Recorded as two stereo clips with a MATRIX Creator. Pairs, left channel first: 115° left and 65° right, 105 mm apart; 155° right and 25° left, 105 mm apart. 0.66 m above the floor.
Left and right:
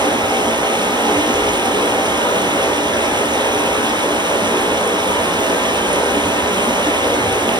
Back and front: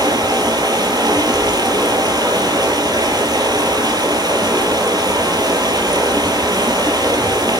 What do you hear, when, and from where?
0.0 s running water: 25° right, 4.5 m